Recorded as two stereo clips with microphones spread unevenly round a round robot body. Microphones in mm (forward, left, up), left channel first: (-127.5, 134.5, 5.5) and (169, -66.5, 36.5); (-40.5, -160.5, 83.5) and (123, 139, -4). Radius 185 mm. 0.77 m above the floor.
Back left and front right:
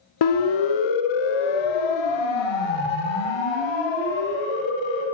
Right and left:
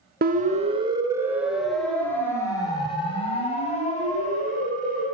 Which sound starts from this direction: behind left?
A siren, at 0.2 s.